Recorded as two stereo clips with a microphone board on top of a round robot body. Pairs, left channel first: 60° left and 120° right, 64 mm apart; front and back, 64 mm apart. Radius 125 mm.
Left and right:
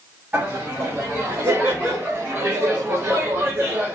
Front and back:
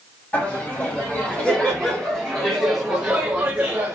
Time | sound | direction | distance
0.3 | laughter | 60° right | 2.5 m